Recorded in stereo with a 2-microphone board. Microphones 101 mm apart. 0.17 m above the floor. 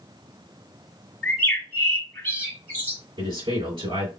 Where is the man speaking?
55° right (ahead or behind), 2.5 m.